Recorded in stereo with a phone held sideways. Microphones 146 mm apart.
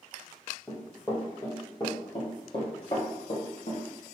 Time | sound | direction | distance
0.7 | running footsteps | 15° left (ahead or behind) | 1.8 m